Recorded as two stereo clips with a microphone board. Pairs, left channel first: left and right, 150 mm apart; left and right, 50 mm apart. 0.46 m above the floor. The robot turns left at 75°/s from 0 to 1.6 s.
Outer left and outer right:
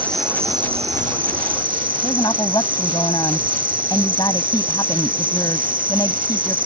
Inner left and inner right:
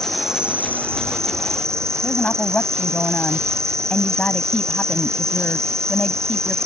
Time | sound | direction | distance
0.0 | an insect | 15° left | ?
2.0 | a woman speaking | 30° left (ahead or behind) | ?